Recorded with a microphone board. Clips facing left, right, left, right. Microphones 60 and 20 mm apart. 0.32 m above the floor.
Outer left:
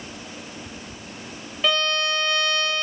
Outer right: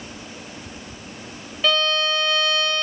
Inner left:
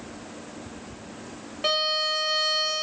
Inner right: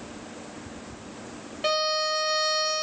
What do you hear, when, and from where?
1.6 s a violin: 5° left (ahead or behind), 1.3 m